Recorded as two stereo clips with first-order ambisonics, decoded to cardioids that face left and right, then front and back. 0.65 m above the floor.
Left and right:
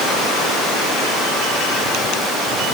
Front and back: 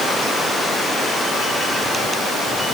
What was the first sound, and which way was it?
Only background noise.